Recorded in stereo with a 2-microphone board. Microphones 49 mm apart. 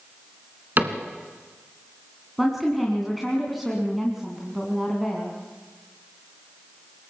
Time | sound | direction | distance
0.8 | a cupboard door | 40° right (ahead or behind) | 2.0 m
2.4 | a woman speaking | 5° right (ahead or behind) | 3 m